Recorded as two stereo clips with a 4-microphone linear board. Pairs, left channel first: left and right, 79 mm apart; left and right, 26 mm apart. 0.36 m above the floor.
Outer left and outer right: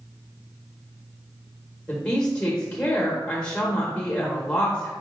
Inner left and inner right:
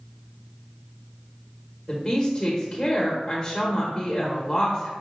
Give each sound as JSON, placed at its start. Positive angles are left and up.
{"t": 1.9, "sound": "a woman speaking", "side_deg": 15, "distance_m": 0.9}